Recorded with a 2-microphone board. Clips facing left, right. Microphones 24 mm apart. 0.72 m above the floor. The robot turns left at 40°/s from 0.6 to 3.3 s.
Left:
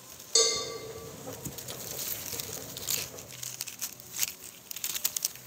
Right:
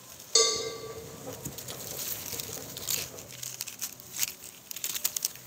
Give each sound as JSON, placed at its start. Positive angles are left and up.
{"t": 0.3, "sound": "a cowbell", "side_deg": -10, "distance_m": 1.0}